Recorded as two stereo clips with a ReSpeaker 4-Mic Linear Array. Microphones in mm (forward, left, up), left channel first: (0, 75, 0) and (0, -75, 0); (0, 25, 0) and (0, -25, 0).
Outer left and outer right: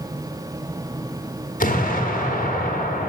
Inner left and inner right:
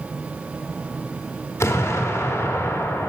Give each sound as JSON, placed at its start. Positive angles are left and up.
{"t": 1.6, "sound": "an explosion", "side_deg": 60, "distance_m": 1.0}